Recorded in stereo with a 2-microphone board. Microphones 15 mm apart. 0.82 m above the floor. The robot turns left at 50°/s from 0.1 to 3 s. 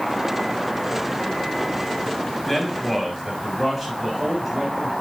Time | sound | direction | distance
2.5 | a man speaking | 15° left (ahead or behind) | 6.5 m